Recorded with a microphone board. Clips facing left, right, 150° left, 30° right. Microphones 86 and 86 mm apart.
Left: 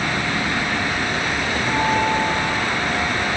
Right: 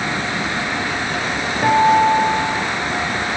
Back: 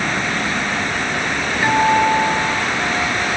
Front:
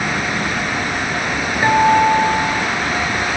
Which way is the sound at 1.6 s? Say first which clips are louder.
Right 9 dB, front 3 dB; 105° right.